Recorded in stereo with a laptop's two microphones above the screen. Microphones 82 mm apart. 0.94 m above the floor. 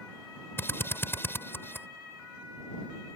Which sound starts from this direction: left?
A drill, at 0.6 s.